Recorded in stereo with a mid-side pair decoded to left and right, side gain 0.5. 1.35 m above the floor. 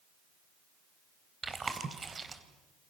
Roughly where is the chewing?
Ahead right.